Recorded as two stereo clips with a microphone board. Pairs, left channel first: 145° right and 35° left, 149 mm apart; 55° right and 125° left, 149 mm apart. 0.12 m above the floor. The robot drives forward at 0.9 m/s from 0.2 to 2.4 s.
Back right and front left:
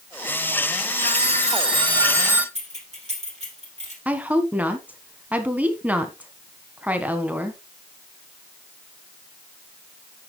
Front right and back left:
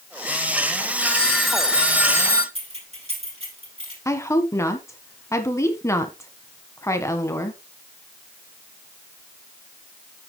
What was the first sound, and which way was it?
A phone ringing, 25° left.